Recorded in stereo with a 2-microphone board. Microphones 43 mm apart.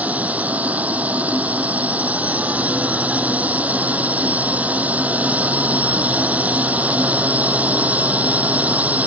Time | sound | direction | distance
0.0 | a drone | 35° right (ahead or behind) | ?